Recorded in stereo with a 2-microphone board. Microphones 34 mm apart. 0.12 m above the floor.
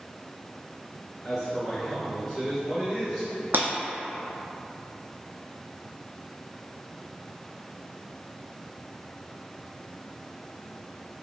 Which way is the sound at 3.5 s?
70° right (ahead or behind).